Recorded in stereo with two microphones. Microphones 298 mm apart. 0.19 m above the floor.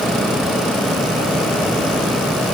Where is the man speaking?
No man speaking in this recording.